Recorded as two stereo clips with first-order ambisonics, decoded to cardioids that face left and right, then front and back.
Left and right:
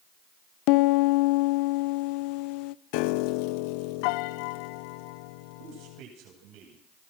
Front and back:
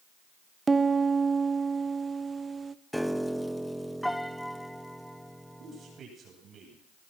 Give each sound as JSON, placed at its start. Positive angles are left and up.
{"t": 0.7, "sound": "a piano", "azimuth_deg": 105, "distance_m": 0.7}
{"t": 2.9, "sound": "a piano", "azimuth_deg": 90, "distance_m": 0.6}
{"t": 5.6, "sound": "a man speaking", "azimuth_deg": -115, "distance_m": 10.0}